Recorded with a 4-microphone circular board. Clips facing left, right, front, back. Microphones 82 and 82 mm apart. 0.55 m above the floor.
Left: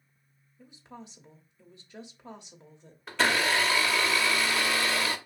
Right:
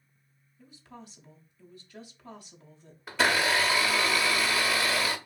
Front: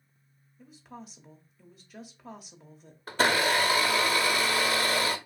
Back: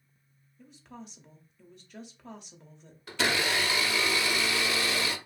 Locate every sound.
0.6 s a woman speaking: 80° left, 0.7 m
3.1 s a blender: 5° right, 0.6 m